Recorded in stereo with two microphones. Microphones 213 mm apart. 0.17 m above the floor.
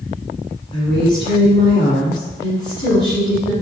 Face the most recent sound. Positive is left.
turn(degrees=20)  # may be behind; listen again after turning